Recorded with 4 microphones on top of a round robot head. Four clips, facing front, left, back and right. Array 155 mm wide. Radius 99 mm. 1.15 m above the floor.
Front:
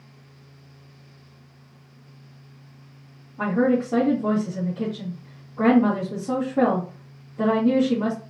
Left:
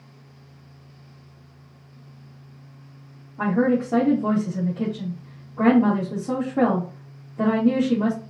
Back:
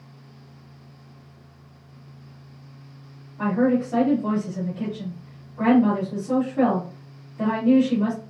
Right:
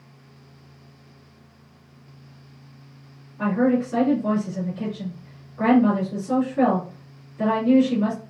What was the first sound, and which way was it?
A woman speaking, 60° left.